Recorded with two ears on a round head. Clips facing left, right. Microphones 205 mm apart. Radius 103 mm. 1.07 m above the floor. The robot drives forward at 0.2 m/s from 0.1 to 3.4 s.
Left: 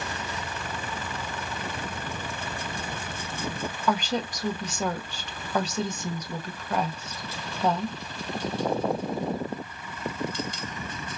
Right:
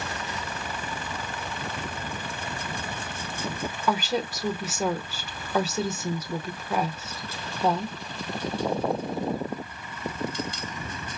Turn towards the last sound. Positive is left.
turn(degrees=-5)  # may be behind; listen again after turning